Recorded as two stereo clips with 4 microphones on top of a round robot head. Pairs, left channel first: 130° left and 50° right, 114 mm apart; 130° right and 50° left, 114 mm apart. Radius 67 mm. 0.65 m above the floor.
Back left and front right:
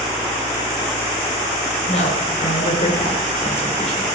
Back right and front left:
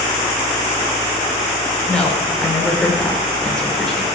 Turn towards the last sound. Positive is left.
turn(degrees=145)